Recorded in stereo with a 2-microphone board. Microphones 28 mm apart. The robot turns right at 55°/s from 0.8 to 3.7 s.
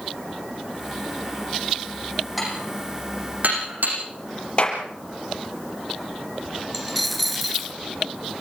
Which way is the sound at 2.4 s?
5° right (ahead or behind).